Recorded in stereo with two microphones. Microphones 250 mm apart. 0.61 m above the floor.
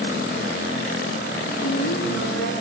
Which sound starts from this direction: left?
A woman speaking, at 1.6 s.